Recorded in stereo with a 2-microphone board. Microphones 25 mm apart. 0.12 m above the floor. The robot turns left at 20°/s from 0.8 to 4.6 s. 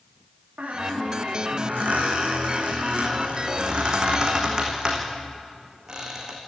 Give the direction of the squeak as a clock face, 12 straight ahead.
3 o'clock.